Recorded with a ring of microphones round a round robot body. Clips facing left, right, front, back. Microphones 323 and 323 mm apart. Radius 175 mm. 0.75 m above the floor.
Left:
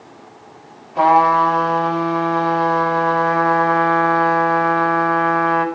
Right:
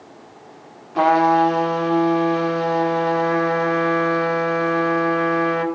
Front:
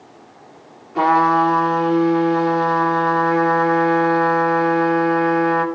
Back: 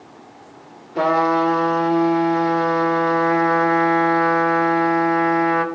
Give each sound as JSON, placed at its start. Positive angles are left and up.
{"t": 0.9, "sound": "a trumpet", "azimuth_deg": -75, "distance_m": 2.5}